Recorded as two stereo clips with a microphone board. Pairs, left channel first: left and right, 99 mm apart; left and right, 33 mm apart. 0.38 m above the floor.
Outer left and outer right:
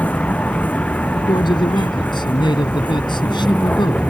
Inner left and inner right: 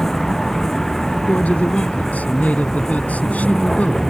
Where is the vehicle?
15° left (ahead or behind).